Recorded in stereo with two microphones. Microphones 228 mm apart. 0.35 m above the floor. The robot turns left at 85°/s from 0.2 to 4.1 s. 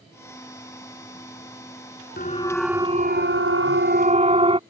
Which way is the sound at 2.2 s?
45° left (ahead or behind).